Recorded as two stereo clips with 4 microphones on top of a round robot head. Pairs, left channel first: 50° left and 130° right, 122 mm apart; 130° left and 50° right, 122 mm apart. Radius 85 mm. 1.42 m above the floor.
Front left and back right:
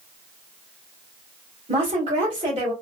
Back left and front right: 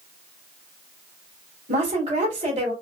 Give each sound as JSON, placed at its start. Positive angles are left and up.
{"t": 1.7, "sound": "a woman speaking", "azimuth_deg": -85, "distance_m": 1.7}